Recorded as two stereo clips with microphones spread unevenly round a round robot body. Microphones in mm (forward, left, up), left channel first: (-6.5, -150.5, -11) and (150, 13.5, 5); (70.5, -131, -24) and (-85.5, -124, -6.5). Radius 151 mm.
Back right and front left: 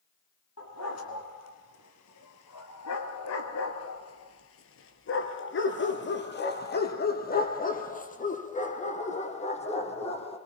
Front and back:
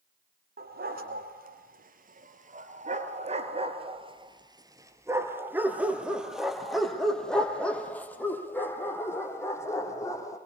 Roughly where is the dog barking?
Behind.